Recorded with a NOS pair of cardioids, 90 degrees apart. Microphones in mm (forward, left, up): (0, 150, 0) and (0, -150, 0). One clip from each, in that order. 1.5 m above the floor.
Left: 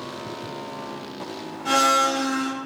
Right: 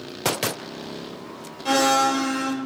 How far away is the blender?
About 1.6 m.